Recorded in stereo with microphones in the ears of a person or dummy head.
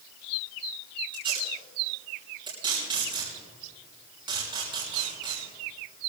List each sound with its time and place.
1.1 s tape being pulled: 25° right (ahead or behind), 6 m